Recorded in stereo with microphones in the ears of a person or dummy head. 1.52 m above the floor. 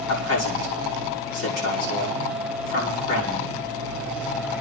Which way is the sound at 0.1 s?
80° left.